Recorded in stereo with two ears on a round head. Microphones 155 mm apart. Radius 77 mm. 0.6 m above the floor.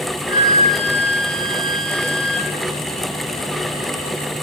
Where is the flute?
25° left (ahead or behind), 1.9 m.